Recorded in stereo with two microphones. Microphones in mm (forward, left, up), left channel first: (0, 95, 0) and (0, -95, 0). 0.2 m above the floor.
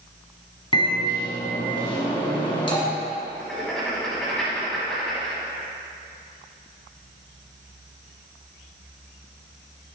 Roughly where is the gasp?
No gasp in this recording.